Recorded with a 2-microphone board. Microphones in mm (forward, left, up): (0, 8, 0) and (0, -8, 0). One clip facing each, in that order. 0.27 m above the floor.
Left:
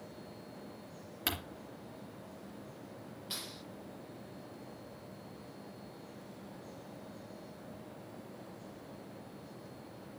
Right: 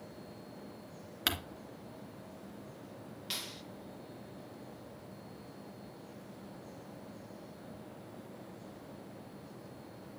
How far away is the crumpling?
About 2.5 m.